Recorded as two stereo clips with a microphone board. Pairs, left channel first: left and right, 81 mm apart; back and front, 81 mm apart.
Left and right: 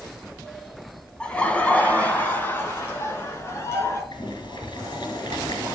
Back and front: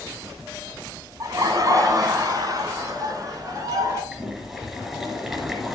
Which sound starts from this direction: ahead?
Laughter, at 1.2 s.